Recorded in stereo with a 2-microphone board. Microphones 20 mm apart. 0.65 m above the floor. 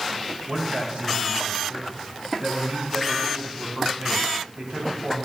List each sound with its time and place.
0.5 s a man speaking: 65° right (ahead or behind), 4 m